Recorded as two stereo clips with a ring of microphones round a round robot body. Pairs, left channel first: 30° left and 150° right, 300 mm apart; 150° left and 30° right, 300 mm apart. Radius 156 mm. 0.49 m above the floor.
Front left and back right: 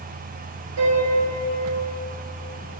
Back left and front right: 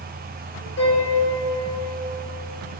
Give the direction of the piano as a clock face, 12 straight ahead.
5 o'clock.